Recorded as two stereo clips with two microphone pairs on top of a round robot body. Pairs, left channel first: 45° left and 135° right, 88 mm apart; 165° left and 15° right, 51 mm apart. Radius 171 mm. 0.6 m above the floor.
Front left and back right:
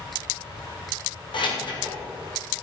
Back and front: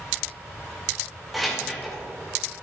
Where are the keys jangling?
70° left, 2.5 m.